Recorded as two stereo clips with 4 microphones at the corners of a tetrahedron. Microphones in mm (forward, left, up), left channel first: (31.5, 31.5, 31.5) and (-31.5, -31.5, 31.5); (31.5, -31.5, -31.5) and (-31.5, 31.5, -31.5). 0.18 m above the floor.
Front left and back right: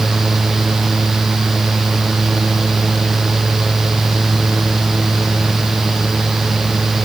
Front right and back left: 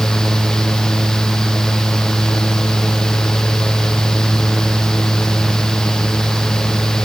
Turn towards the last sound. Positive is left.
No sound to turn to.